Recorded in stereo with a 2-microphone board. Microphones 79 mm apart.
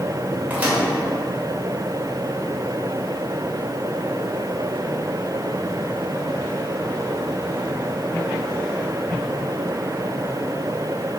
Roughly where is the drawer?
I don't hear a drawer.